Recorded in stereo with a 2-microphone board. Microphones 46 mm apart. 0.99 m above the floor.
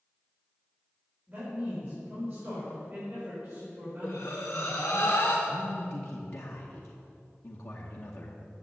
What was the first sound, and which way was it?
A man speaking, 30° right (ahead or behind).